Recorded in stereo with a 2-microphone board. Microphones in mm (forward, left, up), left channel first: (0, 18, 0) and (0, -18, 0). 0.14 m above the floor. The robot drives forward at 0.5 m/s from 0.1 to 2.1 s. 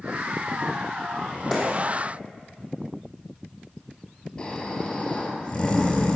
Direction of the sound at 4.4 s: 20° left (ahead or behind).